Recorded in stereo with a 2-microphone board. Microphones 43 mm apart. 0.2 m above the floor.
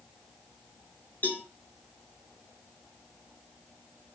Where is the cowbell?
40° left (ahead or behind), 3 m.